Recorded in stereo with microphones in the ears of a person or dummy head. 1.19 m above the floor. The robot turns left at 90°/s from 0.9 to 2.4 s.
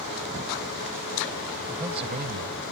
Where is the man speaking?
5° right; by 2.7 s 70° right.